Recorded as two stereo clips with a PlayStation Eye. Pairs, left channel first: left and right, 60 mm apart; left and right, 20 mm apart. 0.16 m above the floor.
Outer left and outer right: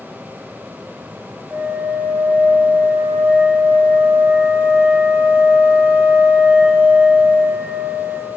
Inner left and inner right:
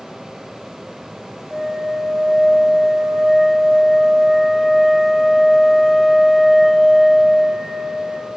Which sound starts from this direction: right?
A flute, at 1.5 s.